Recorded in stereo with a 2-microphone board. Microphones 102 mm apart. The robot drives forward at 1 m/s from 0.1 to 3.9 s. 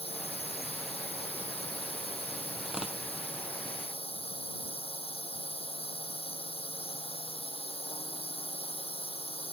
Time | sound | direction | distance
0.0 | a drone | 75° left (ahead or behind) | ?
2.6 | tearing paper | 5° right (ahead or behind) | ?